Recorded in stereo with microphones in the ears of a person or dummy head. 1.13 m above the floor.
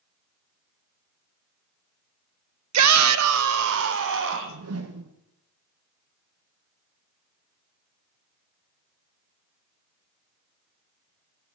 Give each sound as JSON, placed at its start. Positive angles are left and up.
{"t": 2.7, "sound": "a shout", "side_deg": -80, "distance_m": 0.5}
{"t": 4.3, "sound": "a whoosh", "side_deg": -65, "distance_m": 1.0}